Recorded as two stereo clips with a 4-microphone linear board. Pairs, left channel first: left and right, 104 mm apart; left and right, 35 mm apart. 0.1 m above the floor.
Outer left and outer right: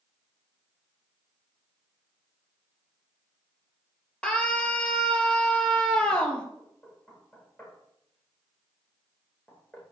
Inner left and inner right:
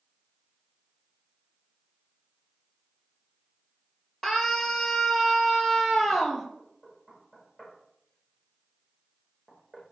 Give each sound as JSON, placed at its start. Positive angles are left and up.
{"t": 4.2, "sound": "a scream", "side_deg": 10, "distance_m": 3.0}
{"t": 6.6, "sound": "knocking", "side_deg": 15, "distance_m": 6.5}